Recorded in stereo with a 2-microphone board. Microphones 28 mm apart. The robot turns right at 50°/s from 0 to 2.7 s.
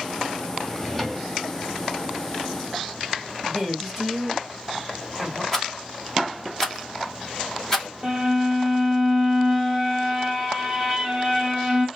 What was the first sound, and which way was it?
A drawer, 15° left (ahead or behind).